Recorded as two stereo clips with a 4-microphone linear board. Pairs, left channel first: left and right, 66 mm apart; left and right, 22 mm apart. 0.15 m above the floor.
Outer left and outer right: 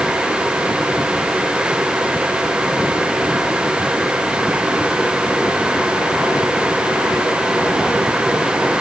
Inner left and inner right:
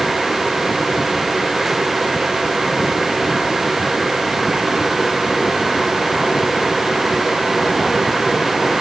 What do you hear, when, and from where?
Only background noise.